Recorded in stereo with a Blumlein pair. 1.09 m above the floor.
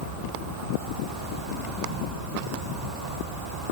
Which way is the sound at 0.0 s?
35° right.